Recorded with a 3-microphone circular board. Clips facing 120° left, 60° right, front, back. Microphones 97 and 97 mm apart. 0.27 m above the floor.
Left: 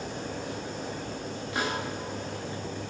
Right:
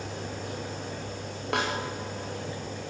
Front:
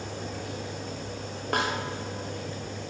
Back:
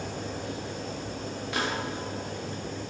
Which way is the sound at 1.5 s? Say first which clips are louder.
Right 2 dB, front 3 dB; 35° right.